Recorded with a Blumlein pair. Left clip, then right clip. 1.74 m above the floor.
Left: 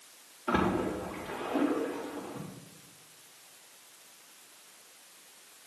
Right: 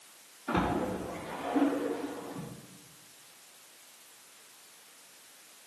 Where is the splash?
60° left, 4 m.